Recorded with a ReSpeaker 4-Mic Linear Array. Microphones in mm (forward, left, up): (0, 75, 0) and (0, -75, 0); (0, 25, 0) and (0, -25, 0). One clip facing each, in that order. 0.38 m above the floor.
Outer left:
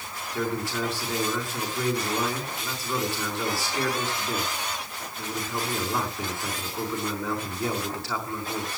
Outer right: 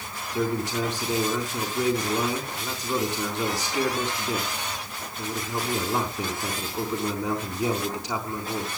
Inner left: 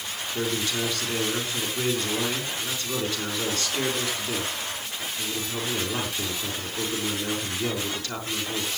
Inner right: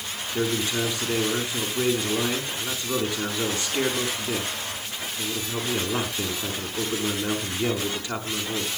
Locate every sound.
0.3 s a man speaking: 20° right (ahead or behind), 4.5 m